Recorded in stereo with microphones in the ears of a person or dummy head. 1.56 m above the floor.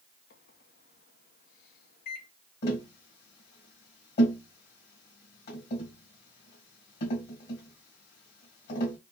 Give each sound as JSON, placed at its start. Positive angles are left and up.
{"t": 0.3, "sound": "a microwave", "side_deg": 50, "distance_m": 0.9}
{"t": 2.6, "sound": "tapping", "side_deg": 50, "distance_m": 1.8}